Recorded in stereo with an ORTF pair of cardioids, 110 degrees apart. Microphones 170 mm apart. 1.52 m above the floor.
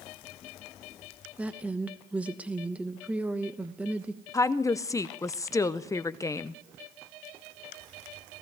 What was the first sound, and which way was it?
A woman speaking, 10° right.